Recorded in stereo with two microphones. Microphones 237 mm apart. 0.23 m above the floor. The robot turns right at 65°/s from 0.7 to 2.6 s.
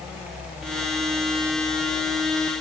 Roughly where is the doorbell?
No doorbell in this recording.